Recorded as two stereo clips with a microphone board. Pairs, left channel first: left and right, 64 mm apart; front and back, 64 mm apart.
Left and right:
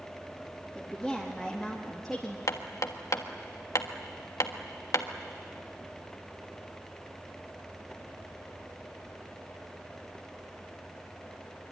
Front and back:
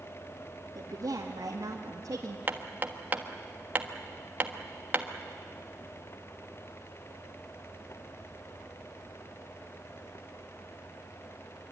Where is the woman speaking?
Straight behind, 2.5 m; by 2.4 s 175° left, 1.5 m.